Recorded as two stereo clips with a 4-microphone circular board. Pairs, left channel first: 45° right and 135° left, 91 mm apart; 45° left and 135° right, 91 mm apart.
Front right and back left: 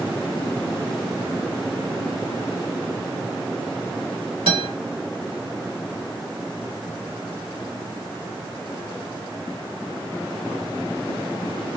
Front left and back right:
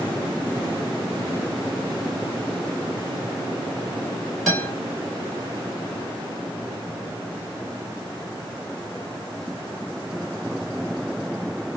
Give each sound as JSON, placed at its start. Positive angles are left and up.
{"t": 4.5, "sound": "a guitar", "azimuth_deg": 130, "distance_m": 2.5}